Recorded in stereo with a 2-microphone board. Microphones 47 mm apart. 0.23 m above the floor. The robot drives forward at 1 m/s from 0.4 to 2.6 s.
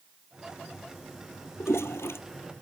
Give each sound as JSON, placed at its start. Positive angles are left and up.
{"t": 1.6, "sound": "a toilet flushing", "side_deg": 80}